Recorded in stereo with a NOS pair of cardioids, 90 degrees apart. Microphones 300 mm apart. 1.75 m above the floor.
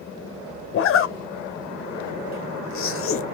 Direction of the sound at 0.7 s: 45° left.